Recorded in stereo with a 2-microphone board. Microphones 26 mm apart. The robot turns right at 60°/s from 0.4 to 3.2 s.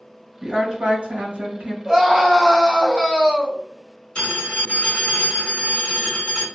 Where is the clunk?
I don't hear a clunk.